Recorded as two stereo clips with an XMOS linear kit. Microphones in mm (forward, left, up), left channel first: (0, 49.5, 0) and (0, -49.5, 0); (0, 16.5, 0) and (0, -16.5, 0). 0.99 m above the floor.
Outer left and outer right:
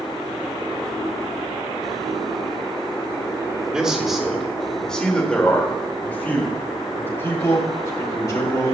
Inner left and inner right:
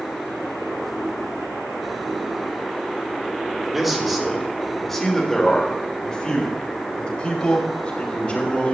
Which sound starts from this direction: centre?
A man speaking, at 3.7 s.